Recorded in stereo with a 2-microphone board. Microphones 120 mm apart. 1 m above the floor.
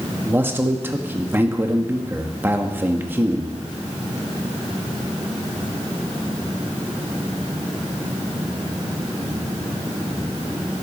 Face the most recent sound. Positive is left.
turn(degrees=-20)  # may be behind; listen again after turning